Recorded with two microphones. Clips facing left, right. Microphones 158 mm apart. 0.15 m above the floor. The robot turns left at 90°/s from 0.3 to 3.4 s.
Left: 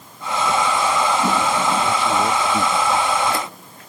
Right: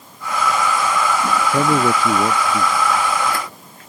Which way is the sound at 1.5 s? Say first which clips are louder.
Right 3 dB; 85° right.